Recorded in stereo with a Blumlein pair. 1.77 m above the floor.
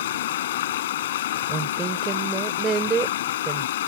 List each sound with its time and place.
0.0 s running water: 60° left
1.5 s a woman speaking: 20° right